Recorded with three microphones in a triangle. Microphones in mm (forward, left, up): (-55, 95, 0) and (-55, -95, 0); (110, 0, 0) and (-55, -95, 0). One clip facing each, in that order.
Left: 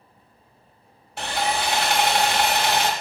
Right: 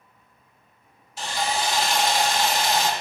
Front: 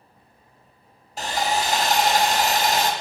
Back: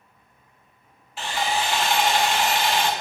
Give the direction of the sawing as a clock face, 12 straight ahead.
10 o'clock.